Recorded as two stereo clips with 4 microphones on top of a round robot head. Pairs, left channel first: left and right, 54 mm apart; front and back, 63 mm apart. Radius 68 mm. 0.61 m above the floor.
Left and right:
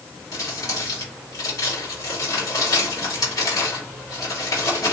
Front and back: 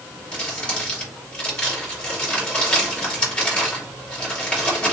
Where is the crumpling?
65° left, 3 m.